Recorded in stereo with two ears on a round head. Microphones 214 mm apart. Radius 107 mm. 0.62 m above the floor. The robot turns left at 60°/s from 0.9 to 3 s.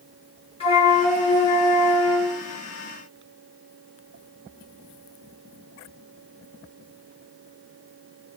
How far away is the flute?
About 1.3 m.